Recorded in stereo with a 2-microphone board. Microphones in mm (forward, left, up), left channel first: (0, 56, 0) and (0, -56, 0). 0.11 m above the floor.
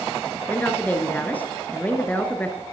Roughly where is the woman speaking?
Centre.